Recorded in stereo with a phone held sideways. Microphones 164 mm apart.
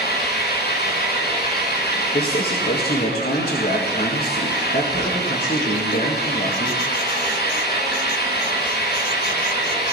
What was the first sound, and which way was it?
An engine running, 85° left.